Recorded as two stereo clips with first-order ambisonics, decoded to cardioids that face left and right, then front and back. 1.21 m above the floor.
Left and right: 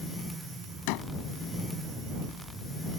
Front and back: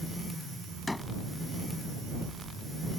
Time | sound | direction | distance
0.9 | a door slam | 80° left | ?